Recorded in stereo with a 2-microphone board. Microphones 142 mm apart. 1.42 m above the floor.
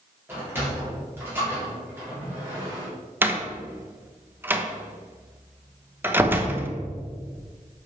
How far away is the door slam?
About 1.1 m.